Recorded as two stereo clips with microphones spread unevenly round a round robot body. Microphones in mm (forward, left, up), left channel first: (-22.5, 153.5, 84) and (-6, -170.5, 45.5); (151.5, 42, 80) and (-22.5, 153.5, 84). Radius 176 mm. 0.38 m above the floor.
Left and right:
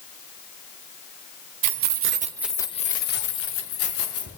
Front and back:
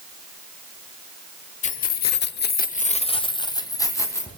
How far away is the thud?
I don't hear a thud.